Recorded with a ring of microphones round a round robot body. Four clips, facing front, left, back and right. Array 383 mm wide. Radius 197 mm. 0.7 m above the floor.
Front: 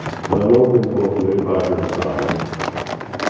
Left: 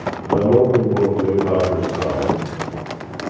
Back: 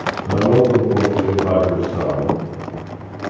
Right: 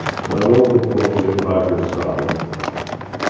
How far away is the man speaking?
About 6 m.